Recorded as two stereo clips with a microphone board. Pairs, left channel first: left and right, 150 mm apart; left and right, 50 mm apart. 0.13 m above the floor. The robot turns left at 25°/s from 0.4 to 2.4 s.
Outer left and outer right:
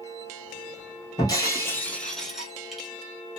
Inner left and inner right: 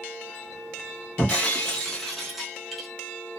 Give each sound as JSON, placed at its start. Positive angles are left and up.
{"t": 1.2, "sound": "breaking glass", "azimuth_deg": 30, "distance_m": 1.2}